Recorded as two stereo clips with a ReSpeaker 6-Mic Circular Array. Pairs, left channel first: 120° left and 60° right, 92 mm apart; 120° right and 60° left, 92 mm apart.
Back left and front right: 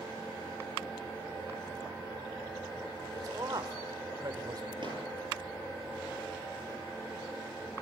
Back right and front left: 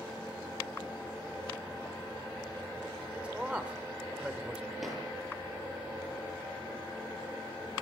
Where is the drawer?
30° right, 9 m.